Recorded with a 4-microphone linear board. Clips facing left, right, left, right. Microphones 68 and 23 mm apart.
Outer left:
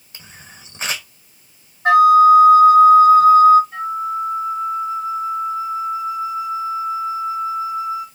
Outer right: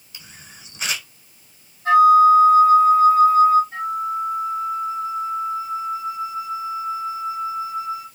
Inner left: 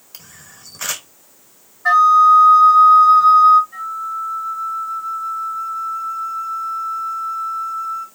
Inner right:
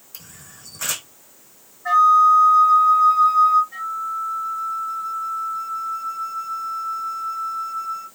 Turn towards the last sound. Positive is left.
turn(degrees=-30)  # may be behind; listen again after turning